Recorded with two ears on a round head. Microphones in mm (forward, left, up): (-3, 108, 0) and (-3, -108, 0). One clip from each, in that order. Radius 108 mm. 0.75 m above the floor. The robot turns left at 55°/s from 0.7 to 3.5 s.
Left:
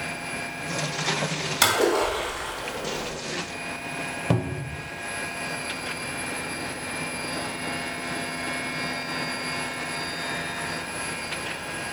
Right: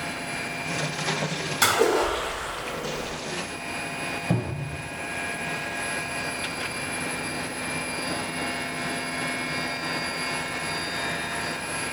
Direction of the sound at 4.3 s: 60° left (ahead or behind).